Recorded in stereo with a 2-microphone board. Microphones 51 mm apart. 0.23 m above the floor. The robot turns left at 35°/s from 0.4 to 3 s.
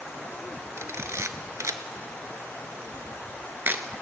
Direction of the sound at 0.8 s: 55° right (ahead or behind).